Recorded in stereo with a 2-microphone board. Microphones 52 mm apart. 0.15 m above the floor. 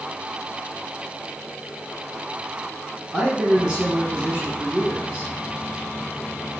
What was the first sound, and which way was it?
A man speaking, 15° right (ahead or behind).